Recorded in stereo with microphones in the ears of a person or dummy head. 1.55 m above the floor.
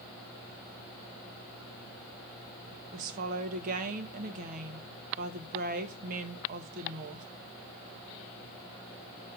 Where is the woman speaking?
45° right (ahead or behind), 1.5 m.